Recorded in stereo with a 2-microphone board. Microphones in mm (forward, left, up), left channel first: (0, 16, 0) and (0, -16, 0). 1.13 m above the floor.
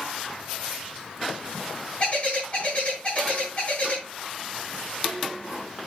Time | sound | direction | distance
2.0 | a bird | 40° left (ahead or behind) | 4 m